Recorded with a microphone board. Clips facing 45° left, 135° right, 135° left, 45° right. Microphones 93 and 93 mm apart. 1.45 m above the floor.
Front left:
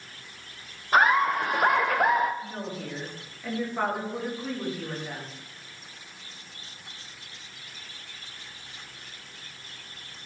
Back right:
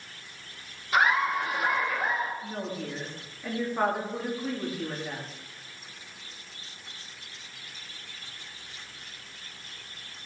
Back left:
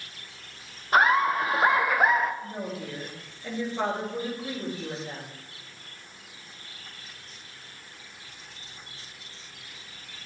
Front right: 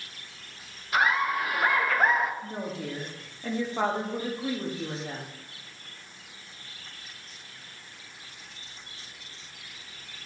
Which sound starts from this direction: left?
Laughter, at 0.9 s.